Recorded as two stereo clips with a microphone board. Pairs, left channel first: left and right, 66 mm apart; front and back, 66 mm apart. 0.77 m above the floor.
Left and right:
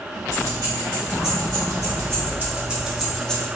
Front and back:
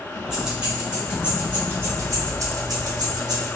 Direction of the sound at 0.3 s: 100° right.